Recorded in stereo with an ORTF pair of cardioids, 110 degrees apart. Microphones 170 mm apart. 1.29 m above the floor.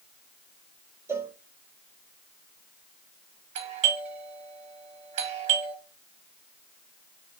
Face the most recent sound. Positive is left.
turn(degrees=-45)